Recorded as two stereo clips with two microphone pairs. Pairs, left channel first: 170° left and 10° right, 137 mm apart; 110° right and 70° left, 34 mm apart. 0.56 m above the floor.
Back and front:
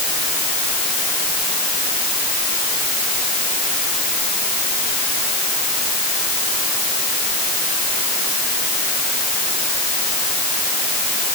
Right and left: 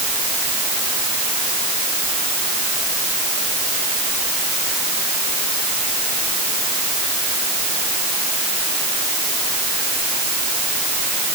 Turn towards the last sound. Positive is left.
No sound to turn to.